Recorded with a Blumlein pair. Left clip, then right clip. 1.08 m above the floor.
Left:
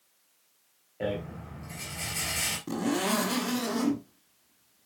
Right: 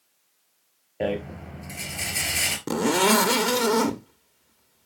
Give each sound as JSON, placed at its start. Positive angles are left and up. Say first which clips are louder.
{"t": 1.0, "sound": "a rattle", "louder": "right 5 dB", "azimuth_deg": -70, "distance_m": 4.0}
{"t": 2.7, "sound": "a zipper", "louder": "right 11 dB", "azimuth_deg": -55, "distance_m": 1.2}